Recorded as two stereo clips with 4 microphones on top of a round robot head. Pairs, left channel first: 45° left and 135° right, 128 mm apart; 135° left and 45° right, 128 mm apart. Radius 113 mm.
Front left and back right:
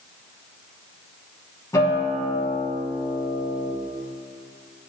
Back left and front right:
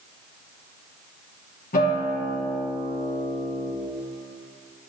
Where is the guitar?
110° left, 1.9 m.